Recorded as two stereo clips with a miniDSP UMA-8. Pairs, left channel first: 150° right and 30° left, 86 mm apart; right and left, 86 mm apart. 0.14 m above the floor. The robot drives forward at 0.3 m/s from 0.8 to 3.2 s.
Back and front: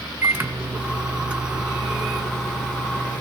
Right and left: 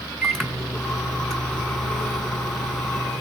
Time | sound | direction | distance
0.2 | a microwave | 10° right | 1.0 m